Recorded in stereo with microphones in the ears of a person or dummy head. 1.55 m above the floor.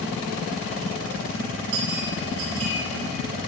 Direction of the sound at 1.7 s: 80° right.